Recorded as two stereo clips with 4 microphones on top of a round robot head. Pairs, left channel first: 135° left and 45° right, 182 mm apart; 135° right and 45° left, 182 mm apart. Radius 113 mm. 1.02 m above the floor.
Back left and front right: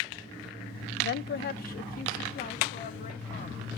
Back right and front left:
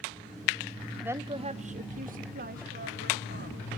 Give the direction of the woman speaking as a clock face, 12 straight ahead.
8 o'clock.